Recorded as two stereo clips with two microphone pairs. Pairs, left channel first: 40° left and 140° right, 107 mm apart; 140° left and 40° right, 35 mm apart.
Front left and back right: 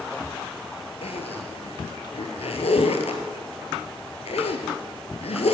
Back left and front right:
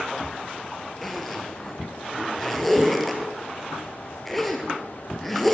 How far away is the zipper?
About 1.4 m.